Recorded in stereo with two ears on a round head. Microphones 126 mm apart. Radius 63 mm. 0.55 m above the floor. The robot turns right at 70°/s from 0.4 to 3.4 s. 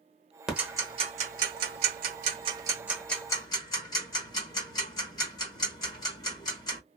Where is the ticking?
5° right (ahead or behind), 0.8 m; by 6.8 s 25° left (ahead or behind), 0.8 m.